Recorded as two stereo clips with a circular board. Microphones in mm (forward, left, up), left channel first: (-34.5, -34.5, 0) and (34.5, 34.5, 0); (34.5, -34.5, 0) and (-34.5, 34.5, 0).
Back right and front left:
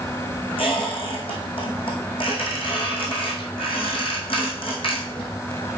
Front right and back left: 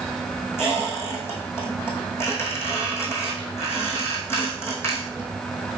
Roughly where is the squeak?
Right.